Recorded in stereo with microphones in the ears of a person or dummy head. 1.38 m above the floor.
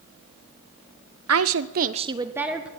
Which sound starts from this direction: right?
A woman speaking, at 1.3 s.